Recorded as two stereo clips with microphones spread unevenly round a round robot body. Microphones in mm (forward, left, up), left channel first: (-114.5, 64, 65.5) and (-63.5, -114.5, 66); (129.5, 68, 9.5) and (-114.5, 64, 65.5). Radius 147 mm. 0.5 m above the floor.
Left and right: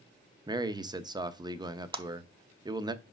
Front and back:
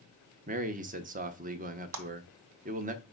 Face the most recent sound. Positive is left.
turn(degrees=-135)